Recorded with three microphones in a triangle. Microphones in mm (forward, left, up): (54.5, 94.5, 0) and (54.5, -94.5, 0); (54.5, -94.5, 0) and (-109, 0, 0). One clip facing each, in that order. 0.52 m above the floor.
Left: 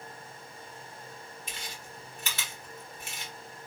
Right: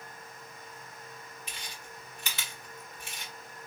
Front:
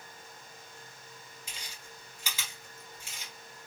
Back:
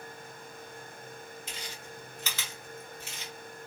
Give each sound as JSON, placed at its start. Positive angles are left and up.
{"t": 1.5, "sound": "chewing", "azimuth_deg": 45, "distance_m": 1.8}